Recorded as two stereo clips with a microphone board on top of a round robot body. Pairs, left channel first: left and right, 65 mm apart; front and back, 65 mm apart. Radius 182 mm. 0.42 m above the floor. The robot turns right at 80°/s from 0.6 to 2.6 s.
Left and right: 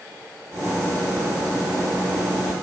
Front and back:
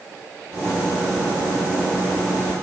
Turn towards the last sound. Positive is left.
No sound to turn to.